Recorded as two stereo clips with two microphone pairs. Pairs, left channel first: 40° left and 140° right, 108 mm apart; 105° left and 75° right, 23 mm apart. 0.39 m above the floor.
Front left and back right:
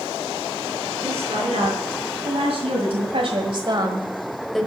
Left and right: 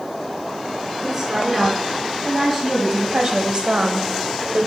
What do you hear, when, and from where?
1.0 s a woman speaking: 150° right, 4.5 m; by 4.7 s 40° right, 1.4 m